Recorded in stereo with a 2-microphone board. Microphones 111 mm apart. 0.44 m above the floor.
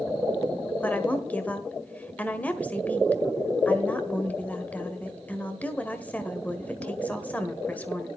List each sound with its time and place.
0.8 s a woman speaking: 15° left (ahead or behind), 1.5 m